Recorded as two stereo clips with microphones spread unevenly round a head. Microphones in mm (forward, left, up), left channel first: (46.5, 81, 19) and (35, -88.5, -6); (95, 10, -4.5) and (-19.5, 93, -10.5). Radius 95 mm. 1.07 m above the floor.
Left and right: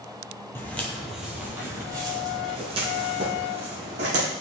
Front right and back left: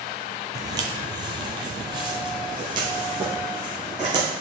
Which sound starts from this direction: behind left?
Footsteps, at 0.6 s.